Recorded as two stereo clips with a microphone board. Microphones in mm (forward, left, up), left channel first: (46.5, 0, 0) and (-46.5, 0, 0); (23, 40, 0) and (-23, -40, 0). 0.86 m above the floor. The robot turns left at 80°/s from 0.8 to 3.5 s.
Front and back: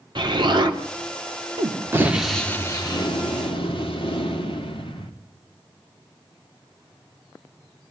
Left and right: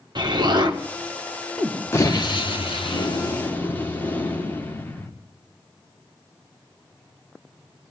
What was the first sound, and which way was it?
An explosion, 150° right.